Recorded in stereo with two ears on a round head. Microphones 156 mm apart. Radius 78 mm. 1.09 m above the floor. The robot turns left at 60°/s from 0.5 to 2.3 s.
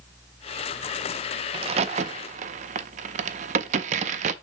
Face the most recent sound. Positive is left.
turn(degrees=-45)  # may be behind; listen again after turning